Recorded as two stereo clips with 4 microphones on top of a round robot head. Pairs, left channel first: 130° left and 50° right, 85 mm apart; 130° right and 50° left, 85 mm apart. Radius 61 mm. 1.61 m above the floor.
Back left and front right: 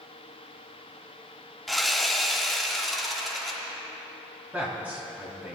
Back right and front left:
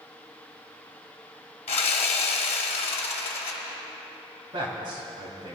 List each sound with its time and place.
1.7 s sawing: 140° right, 1.0 m
4.5 s a man speaking: 25° left, 3 m